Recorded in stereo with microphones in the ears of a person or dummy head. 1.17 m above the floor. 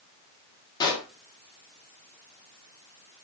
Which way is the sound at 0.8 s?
20° left (ahead or behind).